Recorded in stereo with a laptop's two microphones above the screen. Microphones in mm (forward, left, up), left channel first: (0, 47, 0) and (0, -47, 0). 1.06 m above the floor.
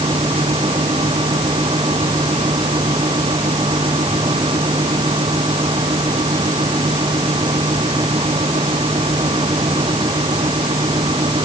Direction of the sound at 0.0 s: 70° right (ahead or behind).